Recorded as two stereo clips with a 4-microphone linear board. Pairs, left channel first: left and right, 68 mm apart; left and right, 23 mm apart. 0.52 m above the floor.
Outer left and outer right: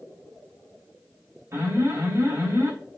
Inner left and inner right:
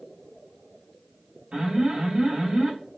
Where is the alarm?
45° right (ahead or behind), 3.5 m.